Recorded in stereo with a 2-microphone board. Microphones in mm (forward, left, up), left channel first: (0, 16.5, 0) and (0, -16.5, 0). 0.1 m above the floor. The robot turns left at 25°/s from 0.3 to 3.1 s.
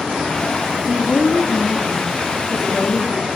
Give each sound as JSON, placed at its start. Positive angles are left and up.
{"t": 0.9, "sound": "a woman speaking", "side_deg": 25, "distance_m": 1.3}